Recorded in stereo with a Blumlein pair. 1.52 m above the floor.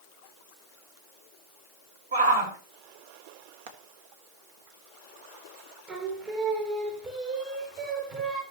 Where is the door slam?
No door slam in this recording.